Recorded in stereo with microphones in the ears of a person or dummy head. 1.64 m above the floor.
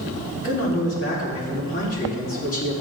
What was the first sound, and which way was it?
A man speaking, 50° left (ahead or behind).